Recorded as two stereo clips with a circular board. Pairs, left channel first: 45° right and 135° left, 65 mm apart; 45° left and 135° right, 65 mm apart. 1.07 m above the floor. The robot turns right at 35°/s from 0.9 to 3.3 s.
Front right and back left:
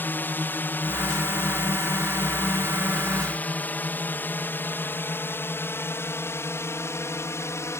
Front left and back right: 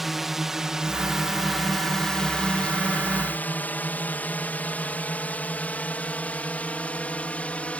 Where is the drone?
50° right; by 7.8 s 20° right.